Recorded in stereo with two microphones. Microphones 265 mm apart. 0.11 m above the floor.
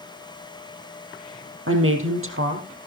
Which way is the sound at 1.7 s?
60° right (ahead or behind).